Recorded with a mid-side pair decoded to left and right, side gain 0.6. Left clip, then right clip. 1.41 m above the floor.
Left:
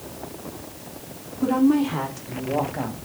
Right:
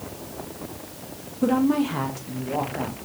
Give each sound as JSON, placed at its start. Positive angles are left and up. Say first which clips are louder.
{"t": 1.4, "sound": "a woman speaking", "louder": "left 2 dB", "azimuth_deg": -15, "distance_m": 1.2}